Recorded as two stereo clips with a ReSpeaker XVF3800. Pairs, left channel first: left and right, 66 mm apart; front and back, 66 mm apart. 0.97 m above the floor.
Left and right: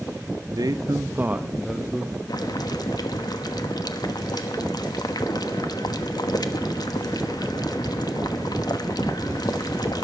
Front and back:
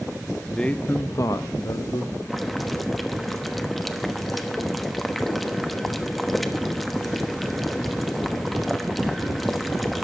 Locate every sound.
0.5 s a man speaking: 85° right, 1.2 m; by 2.2 s 15° left, 1.8 m
2.3 s boiling: 90° left, 1.1 m